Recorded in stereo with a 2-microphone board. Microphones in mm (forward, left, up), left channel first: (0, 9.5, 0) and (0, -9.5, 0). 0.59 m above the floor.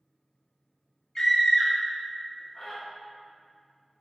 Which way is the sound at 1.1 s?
30° left (ahead or behind).